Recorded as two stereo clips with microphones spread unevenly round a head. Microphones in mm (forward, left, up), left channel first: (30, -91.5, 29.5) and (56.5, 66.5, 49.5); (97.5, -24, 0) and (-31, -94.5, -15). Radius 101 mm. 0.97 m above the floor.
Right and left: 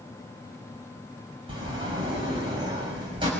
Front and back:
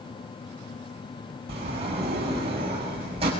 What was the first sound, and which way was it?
A sliding door, 145° left.